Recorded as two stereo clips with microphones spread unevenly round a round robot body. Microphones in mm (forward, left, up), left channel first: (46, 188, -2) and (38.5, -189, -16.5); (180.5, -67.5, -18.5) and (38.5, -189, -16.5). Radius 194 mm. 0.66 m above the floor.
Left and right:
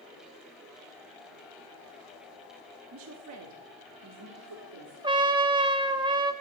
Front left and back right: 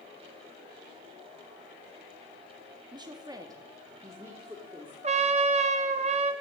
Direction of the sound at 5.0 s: 160° right.